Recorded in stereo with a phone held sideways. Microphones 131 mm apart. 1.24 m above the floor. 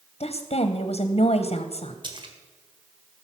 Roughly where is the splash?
Right.